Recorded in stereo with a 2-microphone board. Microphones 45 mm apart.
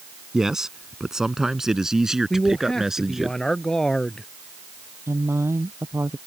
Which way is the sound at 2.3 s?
10° left (ahead or behind).